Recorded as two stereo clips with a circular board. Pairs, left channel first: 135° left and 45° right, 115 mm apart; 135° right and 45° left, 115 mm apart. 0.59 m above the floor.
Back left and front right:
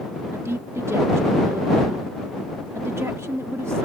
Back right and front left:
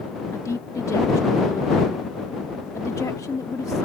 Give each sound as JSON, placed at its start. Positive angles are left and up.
{"t": 0.3, "sound": "a woman speaking", "azimuth_deg": -95}